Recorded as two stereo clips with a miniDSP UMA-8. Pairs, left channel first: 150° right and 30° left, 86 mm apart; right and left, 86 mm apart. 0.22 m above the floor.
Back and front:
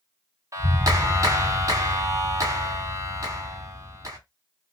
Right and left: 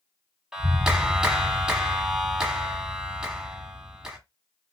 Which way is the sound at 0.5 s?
10° left.